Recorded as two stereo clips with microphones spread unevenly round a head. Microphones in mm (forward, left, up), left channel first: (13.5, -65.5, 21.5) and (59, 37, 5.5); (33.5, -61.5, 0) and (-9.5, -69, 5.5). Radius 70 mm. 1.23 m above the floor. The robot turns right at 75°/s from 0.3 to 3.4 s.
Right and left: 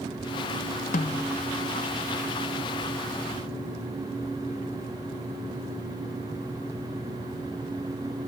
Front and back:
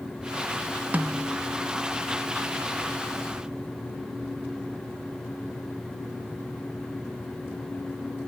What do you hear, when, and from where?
0.9 s a snare drum: 120° right; by 1.3 s 90° right